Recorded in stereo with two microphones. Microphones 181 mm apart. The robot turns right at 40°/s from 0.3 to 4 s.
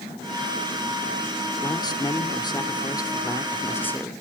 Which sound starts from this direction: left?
A man speaking, at 1.6 s.